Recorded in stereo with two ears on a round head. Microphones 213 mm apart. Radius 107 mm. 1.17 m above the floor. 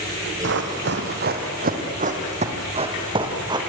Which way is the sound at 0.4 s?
55° right (ahead or behind).